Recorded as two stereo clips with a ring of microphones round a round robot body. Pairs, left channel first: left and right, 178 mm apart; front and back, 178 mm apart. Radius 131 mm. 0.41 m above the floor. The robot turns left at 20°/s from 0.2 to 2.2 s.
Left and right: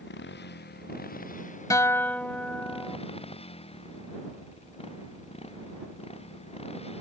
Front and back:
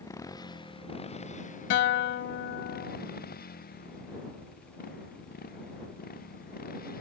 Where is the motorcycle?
70° left; by 7.0 s 35° left.